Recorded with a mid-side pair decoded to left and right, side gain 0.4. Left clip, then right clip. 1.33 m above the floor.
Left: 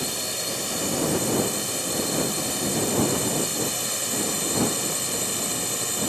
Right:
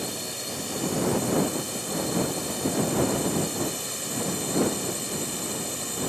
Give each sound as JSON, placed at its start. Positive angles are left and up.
{"t": 0.0, "sound": "a drone", "azimuth_deg": 45}